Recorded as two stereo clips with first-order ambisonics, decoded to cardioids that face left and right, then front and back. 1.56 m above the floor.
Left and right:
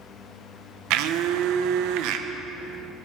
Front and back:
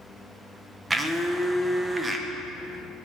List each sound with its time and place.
0.9 s a blender: 100° right, 0.8 m